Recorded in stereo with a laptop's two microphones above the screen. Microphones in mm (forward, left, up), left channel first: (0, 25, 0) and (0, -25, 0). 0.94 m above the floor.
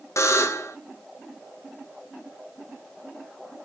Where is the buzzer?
75° left (ahead or behind), 0.6 m.